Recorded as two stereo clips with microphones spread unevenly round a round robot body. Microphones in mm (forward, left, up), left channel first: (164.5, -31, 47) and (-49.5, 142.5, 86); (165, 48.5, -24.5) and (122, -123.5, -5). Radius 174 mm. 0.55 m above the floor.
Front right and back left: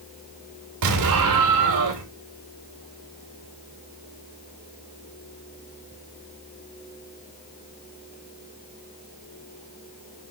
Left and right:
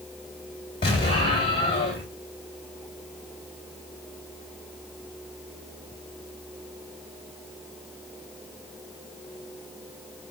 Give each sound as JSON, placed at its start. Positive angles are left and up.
{"t": 0.8, "sound": "an explosion", "azimuth_deg": 145, "distance_m": 2.5}